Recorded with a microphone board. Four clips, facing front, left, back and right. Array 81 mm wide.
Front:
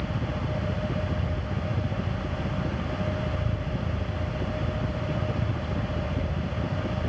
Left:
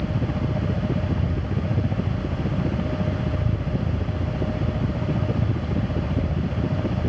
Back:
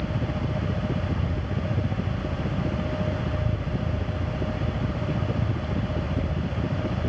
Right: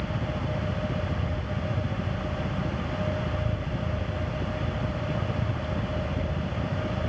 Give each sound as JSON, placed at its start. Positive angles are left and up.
{"t": 0.0, "sound": "a helicopter", "azimuth_deg": 105}